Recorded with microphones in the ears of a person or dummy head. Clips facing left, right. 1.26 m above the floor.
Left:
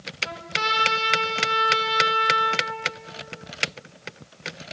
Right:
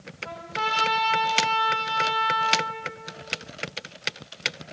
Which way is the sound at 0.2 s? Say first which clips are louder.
Even; 40° left (ahead or behind).